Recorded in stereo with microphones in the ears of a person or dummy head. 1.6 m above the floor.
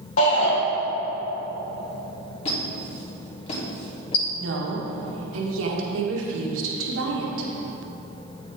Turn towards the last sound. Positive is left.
turn(degrees=-80)